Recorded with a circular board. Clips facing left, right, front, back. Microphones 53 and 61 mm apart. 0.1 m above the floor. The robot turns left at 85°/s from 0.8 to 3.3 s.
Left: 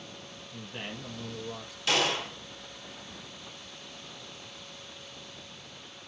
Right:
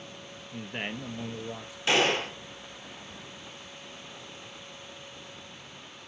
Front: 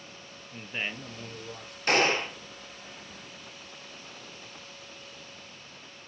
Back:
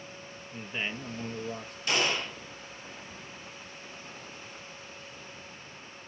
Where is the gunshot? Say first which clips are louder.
Right 3 dB, front 5 dB; 35° right, 1.1 m; by 2.4 s 75° right, 1.1 m.